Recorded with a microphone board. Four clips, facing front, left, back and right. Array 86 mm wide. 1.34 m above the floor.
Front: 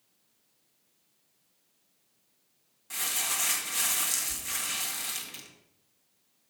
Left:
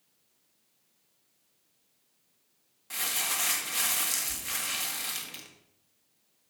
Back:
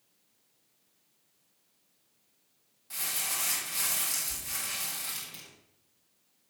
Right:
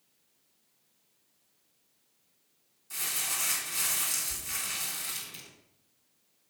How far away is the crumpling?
About 1.7 m.